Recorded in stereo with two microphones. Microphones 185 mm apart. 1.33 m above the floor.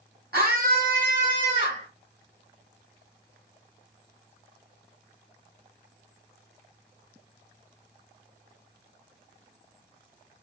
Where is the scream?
55° right (ahead or behind), 2 m; by 1.9 s 40° right (ahead or behind), 3 m.